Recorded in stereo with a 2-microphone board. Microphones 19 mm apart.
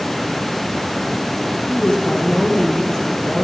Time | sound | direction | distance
1.7 | a woman speaking | 40° left (ahead or behind) | 4 m